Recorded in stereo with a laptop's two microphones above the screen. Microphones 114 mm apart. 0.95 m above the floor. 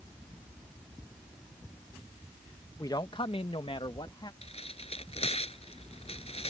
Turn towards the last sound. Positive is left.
turn(degrees=60)  # may be behind; listen again after turning